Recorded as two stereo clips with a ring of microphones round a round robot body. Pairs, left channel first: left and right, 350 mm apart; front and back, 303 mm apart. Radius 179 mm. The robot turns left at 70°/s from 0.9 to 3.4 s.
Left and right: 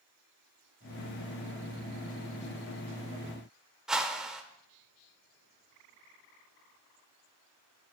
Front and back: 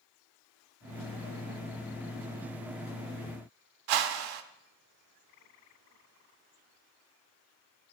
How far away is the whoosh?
About 0.7 m.